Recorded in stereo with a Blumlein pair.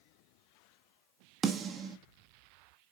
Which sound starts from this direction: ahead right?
A snare drum, at 1.4 s.